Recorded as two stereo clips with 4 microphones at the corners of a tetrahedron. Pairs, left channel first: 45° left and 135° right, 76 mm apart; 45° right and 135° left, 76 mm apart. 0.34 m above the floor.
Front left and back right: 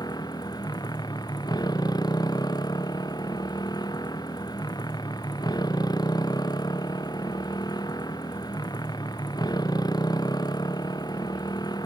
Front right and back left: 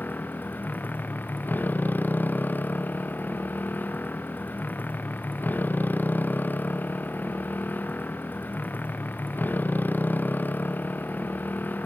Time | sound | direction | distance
0.0 | a motorcycle | 20° left | ?